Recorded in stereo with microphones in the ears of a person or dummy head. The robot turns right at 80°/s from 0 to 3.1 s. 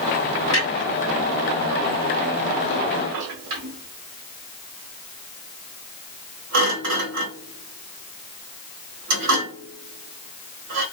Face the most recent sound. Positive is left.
turn(degrees=-85)